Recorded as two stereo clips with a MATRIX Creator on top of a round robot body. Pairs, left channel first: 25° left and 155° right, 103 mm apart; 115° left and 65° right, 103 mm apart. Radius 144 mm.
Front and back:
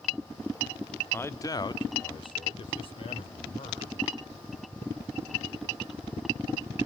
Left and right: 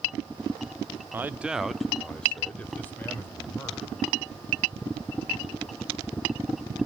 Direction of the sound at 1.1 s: 25° right.